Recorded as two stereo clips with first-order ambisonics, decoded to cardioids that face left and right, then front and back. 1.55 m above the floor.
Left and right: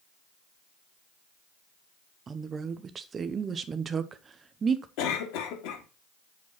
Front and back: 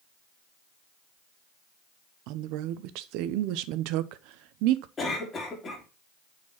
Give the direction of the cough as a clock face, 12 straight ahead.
10 o'clock.